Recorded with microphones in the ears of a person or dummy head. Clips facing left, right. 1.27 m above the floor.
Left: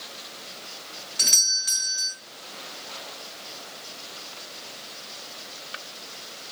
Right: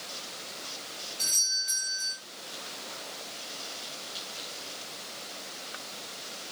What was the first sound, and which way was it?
A doorbell, 75° left (ahead or behind).